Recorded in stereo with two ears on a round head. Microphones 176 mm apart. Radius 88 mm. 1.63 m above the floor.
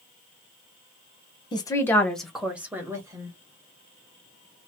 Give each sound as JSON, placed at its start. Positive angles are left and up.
{"t": 1.5, "sound": "a woman speaking", "side_deg": 25, "distance_m": 0.8}